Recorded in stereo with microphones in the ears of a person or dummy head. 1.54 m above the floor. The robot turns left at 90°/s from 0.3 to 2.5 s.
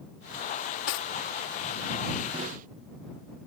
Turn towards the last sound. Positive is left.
turn(degrees=-45)  # may be behind; listen again after turning